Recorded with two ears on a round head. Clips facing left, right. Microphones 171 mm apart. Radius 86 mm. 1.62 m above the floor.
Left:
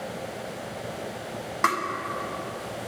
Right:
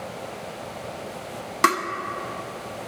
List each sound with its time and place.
1.6 s tapping: 40° right (ahead or behind), 1.3 m